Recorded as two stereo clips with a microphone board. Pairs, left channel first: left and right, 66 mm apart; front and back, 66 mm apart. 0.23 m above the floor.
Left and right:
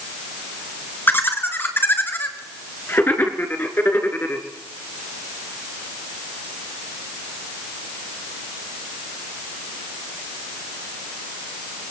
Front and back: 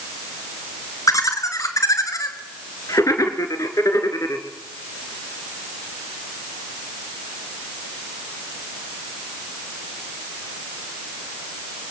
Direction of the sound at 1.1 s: 30° left.